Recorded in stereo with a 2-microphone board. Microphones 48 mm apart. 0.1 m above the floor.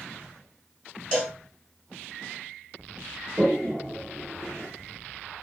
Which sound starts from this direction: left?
A cowbell, at 1.1 s.